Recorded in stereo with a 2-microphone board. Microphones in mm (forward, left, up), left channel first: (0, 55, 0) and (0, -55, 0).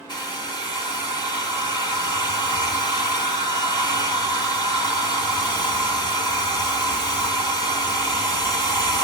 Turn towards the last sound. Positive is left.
turn(degrees=40)  # may be behind; listen again after turning